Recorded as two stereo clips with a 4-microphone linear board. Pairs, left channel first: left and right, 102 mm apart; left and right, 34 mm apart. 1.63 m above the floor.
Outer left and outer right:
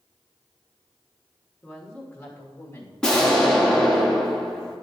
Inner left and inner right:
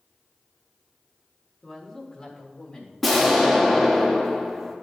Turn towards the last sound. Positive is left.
turn(degrees=5)  # may be behind; listen again after turning